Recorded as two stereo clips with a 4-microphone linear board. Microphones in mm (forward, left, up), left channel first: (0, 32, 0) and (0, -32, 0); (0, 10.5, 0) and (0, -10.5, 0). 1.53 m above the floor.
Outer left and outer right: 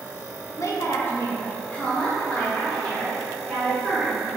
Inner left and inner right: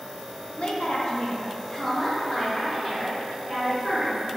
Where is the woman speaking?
55° left (ahead or behind), 0.7 m; by 4.4 s 5° left (ahead or behind), 2.5 m.